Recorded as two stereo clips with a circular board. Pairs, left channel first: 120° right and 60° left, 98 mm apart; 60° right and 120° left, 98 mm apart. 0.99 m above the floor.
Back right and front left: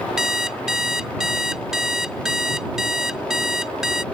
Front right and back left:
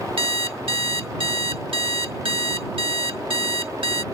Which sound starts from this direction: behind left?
An alarm clock, at 0.2 s.